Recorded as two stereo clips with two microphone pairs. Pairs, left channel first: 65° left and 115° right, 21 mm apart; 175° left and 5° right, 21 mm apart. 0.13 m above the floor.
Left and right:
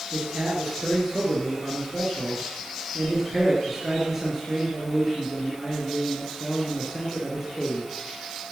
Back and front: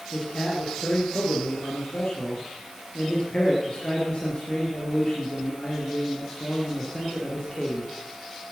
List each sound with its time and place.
0.1 s a man speaking: 165° left, 2.5 m